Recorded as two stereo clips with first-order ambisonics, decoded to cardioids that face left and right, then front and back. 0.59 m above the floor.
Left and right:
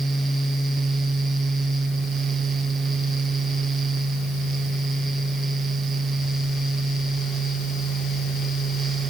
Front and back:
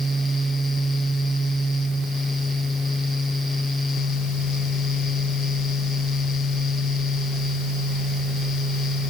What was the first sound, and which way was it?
Only background noise.